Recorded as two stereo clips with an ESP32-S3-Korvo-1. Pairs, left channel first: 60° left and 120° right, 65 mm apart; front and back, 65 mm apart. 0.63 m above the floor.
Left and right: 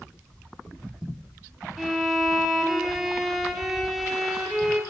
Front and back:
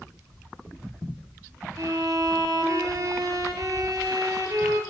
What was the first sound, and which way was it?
A violin, 150° left.